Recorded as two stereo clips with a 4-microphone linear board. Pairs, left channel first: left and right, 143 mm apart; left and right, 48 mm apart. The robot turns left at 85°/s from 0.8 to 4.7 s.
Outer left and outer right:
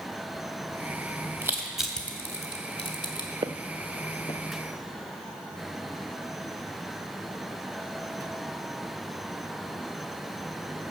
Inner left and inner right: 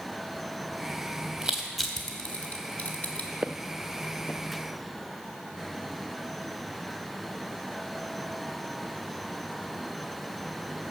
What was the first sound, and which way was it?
Crushing, 20° right (ahead or behind).